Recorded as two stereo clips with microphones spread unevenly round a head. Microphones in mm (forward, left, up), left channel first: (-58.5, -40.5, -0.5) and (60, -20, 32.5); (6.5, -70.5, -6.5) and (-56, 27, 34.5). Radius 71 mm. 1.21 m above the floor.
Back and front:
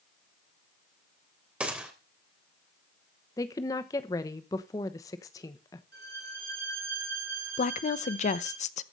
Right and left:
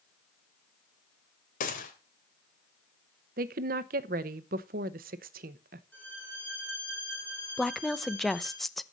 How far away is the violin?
About 4 m.